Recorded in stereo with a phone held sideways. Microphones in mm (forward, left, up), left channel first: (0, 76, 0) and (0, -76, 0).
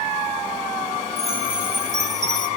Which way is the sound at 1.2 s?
55° right (ahead or behind).